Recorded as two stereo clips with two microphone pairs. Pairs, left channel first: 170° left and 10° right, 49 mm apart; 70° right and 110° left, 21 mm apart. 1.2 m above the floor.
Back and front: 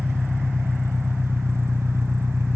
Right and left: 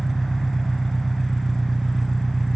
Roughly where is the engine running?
Ahead.